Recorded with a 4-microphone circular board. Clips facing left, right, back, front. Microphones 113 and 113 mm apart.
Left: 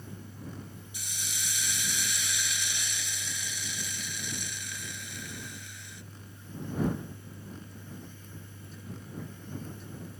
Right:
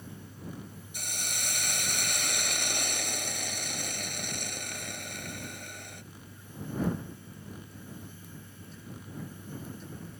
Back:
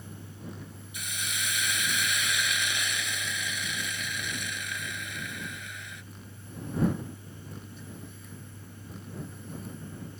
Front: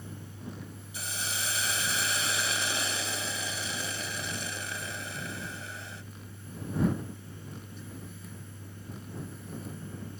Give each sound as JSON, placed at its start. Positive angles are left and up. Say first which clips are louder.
{"t": 0.9, "sound": "a hiss", "louder": "right 6 dB, even", "azimuth_deg": -55}